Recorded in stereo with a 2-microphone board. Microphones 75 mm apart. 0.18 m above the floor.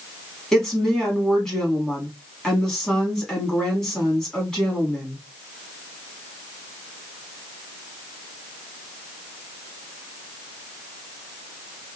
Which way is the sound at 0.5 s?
10° left (ahead or behind).